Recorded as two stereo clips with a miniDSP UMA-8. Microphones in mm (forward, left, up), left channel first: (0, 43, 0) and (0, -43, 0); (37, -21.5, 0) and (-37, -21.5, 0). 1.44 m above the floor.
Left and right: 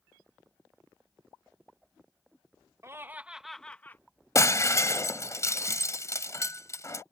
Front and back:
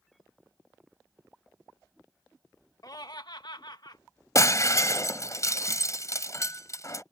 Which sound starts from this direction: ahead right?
Laughter, at 2.8 s.